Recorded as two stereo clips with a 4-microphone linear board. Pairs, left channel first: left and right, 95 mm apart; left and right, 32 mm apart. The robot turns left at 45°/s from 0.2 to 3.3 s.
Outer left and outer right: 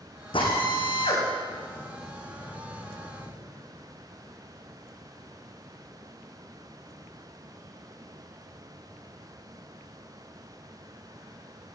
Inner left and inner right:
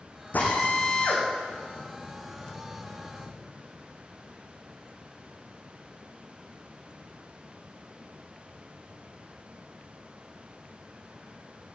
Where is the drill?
65° left (ahead or behind), 7.5 m; by 3.3 s 15° right (ahead or behind), 7.5 m.